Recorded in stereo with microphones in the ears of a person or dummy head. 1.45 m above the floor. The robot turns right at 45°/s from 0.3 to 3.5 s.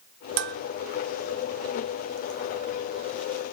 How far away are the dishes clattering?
About 0.6 m.